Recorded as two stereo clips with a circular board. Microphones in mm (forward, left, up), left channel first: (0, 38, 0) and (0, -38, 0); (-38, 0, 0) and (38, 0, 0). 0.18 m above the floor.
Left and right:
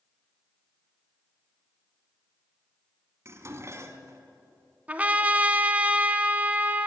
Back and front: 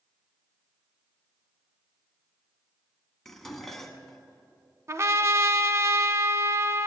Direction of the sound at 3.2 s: 95° right.